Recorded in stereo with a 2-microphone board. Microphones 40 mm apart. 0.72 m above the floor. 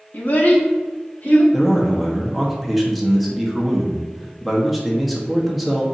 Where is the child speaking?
50° left (ahead or behind), 0.9 m.